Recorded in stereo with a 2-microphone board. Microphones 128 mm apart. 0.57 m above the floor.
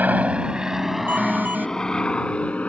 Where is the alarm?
15° right (ahead or behind).